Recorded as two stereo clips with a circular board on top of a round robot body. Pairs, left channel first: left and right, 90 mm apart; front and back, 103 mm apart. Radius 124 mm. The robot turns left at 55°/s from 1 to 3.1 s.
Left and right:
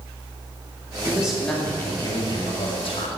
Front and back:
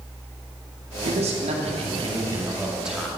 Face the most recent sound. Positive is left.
turn(degrees=85)